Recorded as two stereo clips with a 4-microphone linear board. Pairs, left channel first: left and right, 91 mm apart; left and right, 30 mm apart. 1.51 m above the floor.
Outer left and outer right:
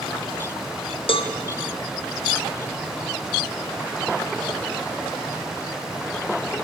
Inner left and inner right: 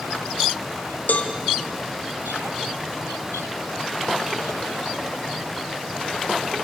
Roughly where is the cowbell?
Left.